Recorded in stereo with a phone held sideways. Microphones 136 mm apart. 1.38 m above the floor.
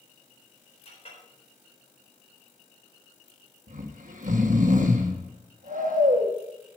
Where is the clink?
50° left (ahead or behind), 4 m.